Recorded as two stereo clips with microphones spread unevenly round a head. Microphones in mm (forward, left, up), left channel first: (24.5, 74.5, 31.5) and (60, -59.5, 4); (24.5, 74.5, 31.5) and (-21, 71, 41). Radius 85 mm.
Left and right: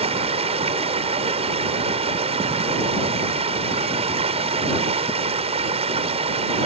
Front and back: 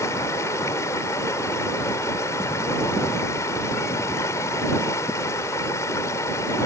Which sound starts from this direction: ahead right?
Running water, at 0.0 s.